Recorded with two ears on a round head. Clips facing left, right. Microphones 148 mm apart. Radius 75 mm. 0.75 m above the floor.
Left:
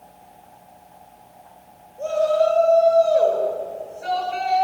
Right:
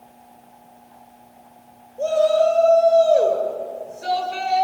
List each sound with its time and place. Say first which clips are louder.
2.0 s a shout: right 2 dB; 40° right (ahead or behind), 10 m